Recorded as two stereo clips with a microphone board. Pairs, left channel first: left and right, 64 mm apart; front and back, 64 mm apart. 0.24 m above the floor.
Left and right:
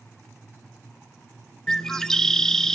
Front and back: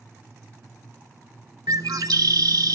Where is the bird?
170° left, 0.5 m.